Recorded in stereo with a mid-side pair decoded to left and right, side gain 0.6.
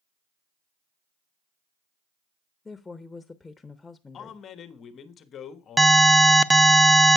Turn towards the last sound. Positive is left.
turn(degrees=-15)